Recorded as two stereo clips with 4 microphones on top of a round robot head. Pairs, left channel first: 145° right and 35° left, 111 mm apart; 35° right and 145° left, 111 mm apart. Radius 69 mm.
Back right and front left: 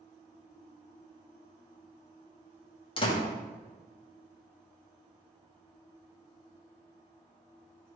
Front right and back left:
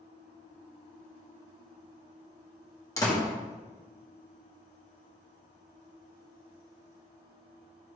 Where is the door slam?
100° right, 2 m.